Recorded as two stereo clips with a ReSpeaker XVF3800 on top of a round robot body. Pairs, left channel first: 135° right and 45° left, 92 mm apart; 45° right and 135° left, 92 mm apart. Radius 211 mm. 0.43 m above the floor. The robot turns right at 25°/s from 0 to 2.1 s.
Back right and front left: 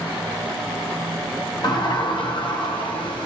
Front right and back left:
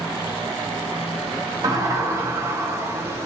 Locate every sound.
1.6 s a sliding door: 175° right, 1.9 m; by 3.3 s 165° right, 1.9 m